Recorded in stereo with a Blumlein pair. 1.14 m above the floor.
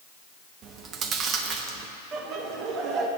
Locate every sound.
0.6 s chewing: 25° right, 1.0 m
2.1 s laughter: 30° right, 1.7 m